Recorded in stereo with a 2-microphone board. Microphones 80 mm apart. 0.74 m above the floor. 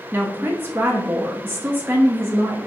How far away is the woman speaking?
About 0.6 m.